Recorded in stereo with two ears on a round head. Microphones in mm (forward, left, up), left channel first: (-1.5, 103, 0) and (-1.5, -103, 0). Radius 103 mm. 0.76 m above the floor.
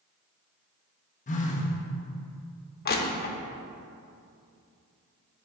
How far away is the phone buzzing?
About 0.8 m.